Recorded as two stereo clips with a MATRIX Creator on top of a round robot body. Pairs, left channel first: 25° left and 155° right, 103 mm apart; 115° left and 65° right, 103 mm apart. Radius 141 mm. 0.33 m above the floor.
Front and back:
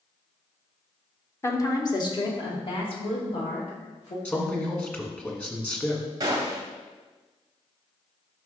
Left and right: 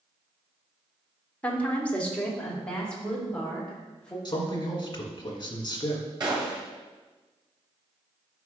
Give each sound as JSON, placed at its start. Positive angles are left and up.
{"t": 1.4, "sound": "a woman speaking", "azimuth_deg": 50, "distance_m": 1.2}
{"t": 4.2, "sound": "a man speaking", "azimuth_deg": 90, "distance_m": 1.8}
{"t": 6.2, "sound": "a gunshot", "azimuth_deg": -110, "distance_m": 1.8}